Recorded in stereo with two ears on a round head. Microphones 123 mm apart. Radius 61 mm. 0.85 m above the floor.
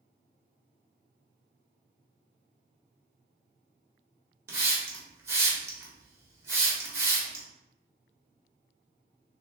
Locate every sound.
4.5 s a hiss: 20° right (ahead or behind), 1.1 m